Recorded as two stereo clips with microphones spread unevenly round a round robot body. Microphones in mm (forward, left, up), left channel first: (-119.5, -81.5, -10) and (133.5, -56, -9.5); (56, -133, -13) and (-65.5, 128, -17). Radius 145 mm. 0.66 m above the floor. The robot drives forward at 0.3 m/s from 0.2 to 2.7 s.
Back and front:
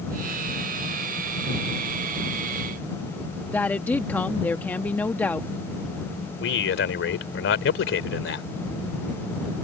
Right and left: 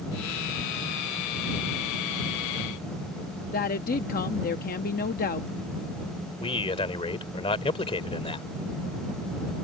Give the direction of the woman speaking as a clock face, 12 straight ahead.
3 o'clock.